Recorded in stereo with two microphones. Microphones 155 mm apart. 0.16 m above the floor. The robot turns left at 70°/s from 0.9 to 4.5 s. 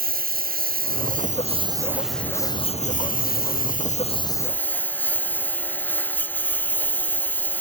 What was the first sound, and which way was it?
A lawn mower, 95° right.